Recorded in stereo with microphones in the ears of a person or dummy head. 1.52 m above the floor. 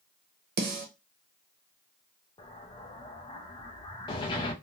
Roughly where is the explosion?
Left.